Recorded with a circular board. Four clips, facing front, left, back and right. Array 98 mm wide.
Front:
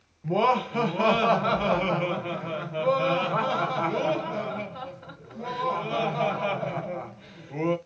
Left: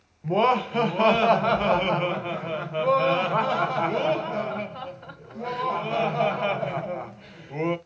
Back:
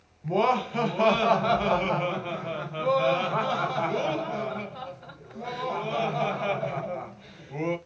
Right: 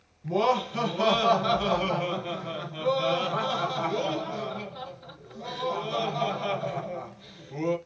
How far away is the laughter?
About 1.2 m.